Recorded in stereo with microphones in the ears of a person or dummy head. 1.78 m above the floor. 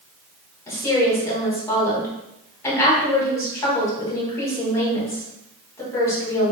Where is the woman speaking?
10° left (ahead or behind), 2 m.